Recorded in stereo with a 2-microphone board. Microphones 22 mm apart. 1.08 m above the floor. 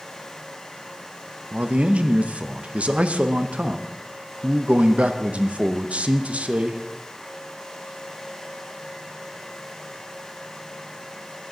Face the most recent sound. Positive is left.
turn(degrees=-80)